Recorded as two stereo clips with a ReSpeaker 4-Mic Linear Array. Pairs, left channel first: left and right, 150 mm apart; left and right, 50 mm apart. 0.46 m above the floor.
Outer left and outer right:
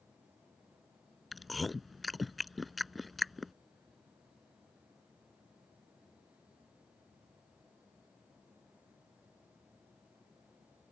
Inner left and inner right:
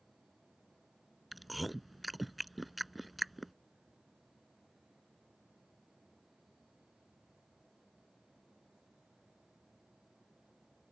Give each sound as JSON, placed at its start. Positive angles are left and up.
{"t": 1.3, "sound": "chewing", "side_deg": 0}